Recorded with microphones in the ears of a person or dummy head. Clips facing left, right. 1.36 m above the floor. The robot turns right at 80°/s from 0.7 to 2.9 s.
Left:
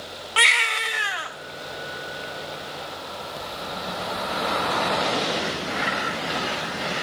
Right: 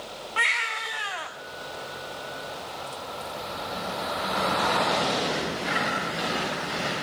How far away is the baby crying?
About 1.0 m.